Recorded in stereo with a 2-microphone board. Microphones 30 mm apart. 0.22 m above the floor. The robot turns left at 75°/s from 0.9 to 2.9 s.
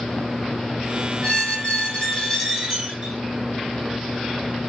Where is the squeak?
100° left, 1.3 m; by 3.1 s 25° right, 1.3 m.